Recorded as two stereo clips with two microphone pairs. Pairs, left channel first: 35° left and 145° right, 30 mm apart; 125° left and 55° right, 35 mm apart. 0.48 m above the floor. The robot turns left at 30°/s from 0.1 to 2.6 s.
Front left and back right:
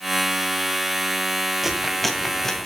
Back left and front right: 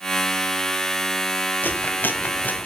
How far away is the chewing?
About 2 m.